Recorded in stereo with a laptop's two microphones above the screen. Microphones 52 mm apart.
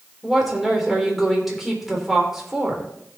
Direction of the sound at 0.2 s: 5° right (ahead or behind).